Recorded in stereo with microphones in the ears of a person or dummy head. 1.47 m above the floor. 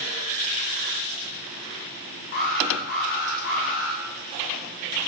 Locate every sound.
2.3 s an alarm: 45° left (ahead or behind), 4.5 m